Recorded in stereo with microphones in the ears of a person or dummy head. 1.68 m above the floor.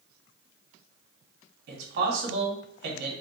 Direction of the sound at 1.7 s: 65° right (ahead or behind).